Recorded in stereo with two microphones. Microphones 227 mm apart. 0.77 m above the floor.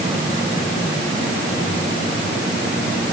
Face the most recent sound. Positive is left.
No sound to turn to.